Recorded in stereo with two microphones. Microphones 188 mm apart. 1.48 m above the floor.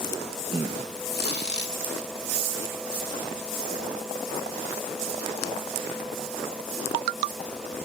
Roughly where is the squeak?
Right.